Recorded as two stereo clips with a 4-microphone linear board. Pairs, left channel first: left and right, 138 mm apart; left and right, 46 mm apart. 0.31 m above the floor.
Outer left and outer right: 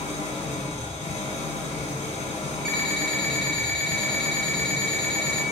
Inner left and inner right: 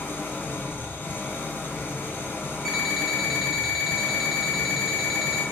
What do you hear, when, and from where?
0.0 s an engine running: 55° left (ahead or behind), 0.8 m
2.6 s an alarm clock: 5° left (ahead or behind), 1.2 m